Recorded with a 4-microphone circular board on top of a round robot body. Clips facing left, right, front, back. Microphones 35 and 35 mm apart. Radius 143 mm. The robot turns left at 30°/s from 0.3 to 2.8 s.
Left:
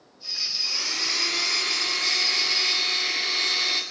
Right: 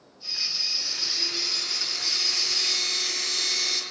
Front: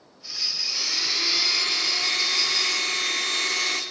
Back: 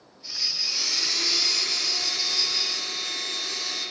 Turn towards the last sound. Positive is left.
turn(degrees=25)